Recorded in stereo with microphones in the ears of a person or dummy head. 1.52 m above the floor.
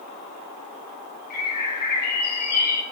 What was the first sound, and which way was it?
A bird, 50° left (ahead or behind).